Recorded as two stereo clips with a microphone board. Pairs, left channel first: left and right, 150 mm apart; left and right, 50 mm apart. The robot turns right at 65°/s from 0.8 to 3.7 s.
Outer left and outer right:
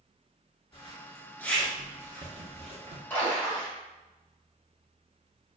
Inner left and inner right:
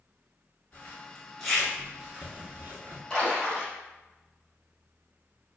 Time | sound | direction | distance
0.7 | a zipper | 40° left (ahead or behind) | 0.7 m
3.1 | a splash | 10° left (ahead or behind) | 1.2 m